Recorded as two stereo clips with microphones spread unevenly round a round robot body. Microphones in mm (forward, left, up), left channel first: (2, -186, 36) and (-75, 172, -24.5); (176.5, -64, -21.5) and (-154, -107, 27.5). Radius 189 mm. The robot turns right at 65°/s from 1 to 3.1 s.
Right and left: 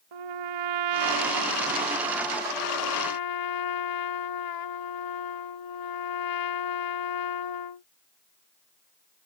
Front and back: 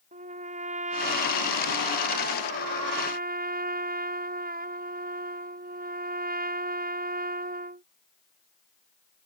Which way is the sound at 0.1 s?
115° left.